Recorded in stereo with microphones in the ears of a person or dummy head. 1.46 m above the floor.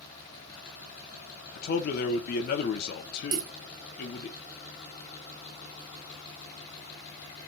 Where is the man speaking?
60° left (ahead or behind), 0.9 m.